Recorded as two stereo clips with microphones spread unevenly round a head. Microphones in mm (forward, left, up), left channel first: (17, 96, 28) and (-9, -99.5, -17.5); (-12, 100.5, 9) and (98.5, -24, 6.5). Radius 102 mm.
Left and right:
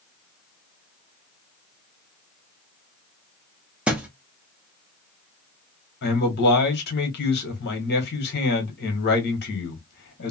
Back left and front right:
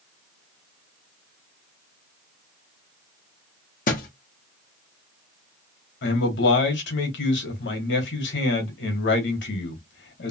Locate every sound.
3.9 s a thud: 170° left, 0.6 m
6.0 s a man speaking: 125° left, 1.3 m